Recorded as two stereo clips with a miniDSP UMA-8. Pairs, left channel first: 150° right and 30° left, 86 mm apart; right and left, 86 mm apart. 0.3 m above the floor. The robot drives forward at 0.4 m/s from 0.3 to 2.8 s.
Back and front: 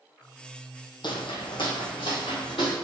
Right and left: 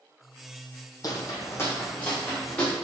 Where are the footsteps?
130° right, 0.8 m; by 2.7 s 165° right, 2 m.